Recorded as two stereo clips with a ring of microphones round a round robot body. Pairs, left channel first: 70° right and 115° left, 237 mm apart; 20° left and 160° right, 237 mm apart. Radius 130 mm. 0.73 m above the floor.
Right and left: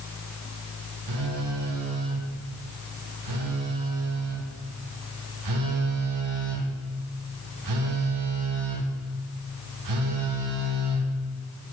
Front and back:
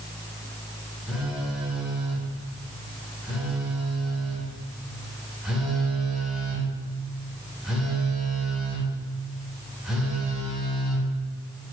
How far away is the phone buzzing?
About 0.7 m.